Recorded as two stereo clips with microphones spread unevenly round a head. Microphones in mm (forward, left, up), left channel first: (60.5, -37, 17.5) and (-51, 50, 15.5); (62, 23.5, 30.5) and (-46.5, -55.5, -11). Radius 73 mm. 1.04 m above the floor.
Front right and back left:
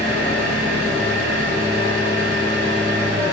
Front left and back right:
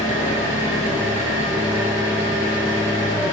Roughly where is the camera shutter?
I don't hear a camera shutter.